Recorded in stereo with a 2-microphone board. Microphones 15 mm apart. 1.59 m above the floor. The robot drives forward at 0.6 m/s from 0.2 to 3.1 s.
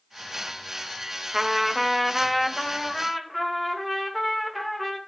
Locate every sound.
1.3 s a trumpet: 25° right (ahead or behind), 0.8 m; by 5.0 s 10° right (ahead or behind), 1.8 m